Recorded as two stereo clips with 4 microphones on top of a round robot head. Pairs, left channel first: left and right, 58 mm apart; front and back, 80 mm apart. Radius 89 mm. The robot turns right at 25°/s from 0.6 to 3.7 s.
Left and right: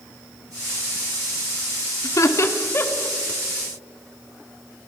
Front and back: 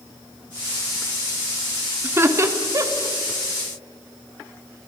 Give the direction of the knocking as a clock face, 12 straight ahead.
I don't hear knocking.